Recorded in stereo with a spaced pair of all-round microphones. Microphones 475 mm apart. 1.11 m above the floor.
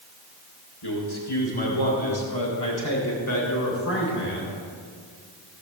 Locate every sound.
0.8 s a man speaking: 85° left, 3.5 m; by 4.5 s 25° left (ahead or behind), 3.5 m